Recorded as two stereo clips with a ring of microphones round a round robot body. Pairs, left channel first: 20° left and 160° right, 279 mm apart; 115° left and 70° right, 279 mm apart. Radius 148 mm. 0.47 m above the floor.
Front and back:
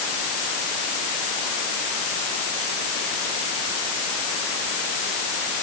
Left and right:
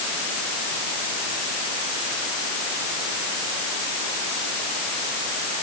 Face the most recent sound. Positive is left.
No sound to turn to.